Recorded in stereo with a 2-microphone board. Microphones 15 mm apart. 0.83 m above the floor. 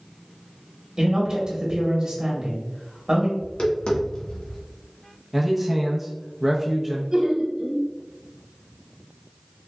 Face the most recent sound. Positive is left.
turn(degrees=-25)  # may be behind; listen again after turning